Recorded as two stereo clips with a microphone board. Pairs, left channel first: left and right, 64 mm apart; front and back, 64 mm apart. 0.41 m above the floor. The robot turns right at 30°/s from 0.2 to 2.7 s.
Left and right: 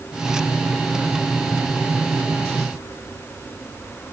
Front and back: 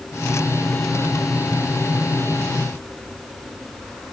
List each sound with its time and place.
Only background noise.